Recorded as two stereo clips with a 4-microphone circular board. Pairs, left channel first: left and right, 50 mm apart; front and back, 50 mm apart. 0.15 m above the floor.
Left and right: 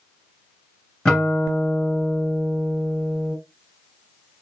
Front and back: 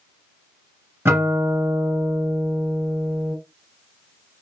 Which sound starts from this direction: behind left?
A guitar, at 1.1 s.